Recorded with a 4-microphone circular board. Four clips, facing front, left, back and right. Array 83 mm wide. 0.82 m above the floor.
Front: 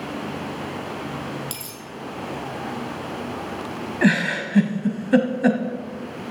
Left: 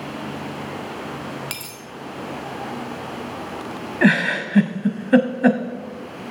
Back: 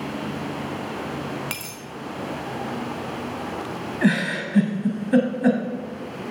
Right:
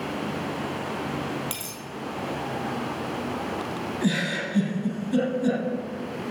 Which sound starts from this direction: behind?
A dropped coin, at 1.5 s.